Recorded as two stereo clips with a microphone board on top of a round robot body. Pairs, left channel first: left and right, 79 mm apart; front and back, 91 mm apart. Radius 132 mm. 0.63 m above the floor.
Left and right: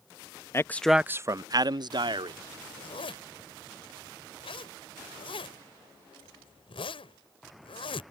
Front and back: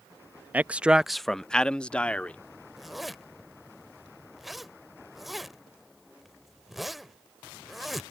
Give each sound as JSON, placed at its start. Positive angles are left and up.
{"t": 0.5, "sound": "a man speaking", "azimuth_deg": 115}
{"t": 2.8, "sound": "a zipper", "azimuth_deg": 90}